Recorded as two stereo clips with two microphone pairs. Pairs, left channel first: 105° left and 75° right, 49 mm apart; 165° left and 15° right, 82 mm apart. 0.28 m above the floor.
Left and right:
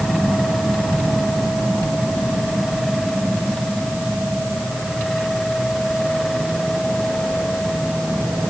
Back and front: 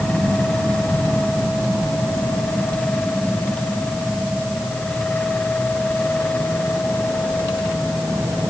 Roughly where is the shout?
I don't hear a shout.